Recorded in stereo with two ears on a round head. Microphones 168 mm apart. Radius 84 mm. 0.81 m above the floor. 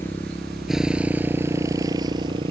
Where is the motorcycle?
10° left (ahead or behind); by 2.5 s 25° right (ahead or behind).